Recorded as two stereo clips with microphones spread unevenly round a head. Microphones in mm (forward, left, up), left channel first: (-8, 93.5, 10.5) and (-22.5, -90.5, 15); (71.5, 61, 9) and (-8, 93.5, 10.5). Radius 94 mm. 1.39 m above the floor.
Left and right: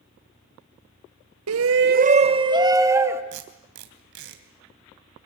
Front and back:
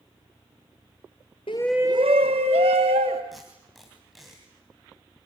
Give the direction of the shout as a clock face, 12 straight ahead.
3 o'clock.